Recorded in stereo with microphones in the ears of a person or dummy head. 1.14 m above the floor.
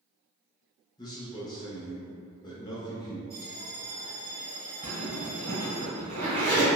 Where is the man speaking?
20° left (ahead or behind), 0.6 m.